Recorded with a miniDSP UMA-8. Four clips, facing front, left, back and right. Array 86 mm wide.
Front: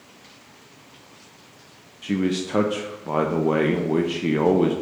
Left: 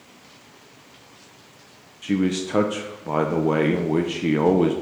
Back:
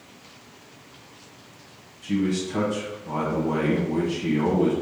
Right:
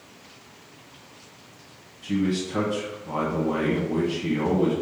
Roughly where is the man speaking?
Ahead left.